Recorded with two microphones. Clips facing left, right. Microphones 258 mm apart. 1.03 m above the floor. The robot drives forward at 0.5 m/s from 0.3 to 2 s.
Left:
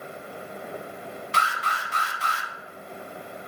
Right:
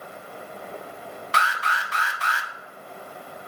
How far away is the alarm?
About 0.7 m.